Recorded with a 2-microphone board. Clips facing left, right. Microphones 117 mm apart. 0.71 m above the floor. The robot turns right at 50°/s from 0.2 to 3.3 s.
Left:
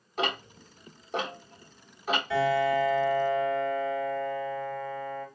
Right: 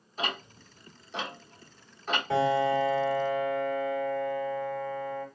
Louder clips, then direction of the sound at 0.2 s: Left 4 dB; 70° left (ahead or behind).